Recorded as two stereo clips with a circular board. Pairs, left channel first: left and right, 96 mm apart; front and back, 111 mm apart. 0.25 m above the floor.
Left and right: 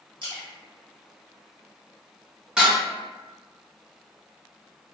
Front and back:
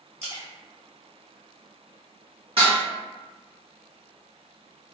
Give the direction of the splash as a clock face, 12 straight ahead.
4 o'clock.